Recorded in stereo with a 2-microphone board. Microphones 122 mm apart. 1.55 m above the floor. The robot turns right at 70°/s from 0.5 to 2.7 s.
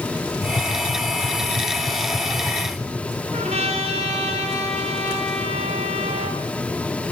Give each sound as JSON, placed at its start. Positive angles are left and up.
{"t": 0.4, "sound": "tapping", "side_deg": 55, "distance_m": 1.3}
{"t": 3.3, "sound": "a trumpet", "side_deg": -70, "distance_m": 2.5}